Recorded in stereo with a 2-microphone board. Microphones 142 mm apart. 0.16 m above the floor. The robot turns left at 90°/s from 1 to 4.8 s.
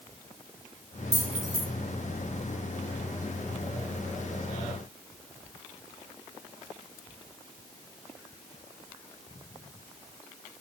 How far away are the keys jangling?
About 1.7 m.